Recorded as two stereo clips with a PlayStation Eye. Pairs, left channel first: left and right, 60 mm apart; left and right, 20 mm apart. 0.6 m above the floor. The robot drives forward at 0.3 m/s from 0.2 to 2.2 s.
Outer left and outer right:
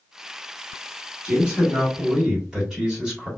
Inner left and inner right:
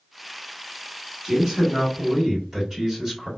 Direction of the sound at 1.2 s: 15° right (ahead or behind).